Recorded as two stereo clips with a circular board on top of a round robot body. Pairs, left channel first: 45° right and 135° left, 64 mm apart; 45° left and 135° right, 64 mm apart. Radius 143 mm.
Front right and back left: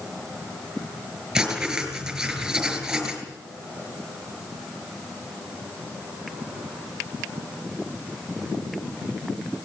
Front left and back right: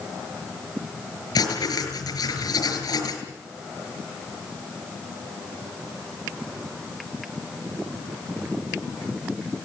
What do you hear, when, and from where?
1.4 s writing: 55° left, 5.5 m